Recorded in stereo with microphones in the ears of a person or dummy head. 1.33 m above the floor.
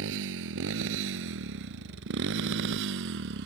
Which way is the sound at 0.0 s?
75° right (ahead or behind).